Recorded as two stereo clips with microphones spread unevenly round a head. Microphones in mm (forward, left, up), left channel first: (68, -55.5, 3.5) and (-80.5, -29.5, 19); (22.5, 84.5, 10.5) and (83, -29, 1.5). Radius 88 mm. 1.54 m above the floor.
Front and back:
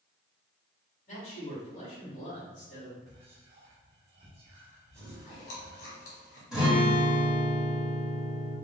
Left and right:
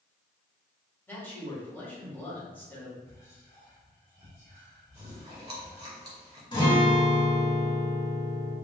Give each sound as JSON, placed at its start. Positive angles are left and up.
{"t": 1.1, "sound": "a man speaking", "azimuth_deg": 45, "distance_m": 1.9}
{"t": 3.1, "sound": "whispering", "azimuth_deg": 180, "distance_m": 1.3}
{"t": 5.0, "sound": "chewing", "azimuth_deg": -10, "distance_m": 1.9}
{"t": 6.5, "sound": "a guitar", "azimuth_deg": 90, "distance_m": 1.6}